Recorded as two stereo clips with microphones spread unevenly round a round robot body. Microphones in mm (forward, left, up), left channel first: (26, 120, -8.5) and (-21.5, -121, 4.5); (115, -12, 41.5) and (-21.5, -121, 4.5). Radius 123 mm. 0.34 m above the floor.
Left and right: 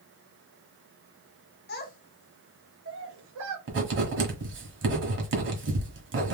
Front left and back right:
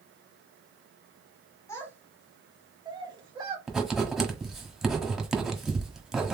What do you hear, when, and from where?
1.7 s a child speaking: 120° left, 1.0 m; by 3.6 s 85° right, 1.2 m
3.7 s writing: 60° right, 1.4 m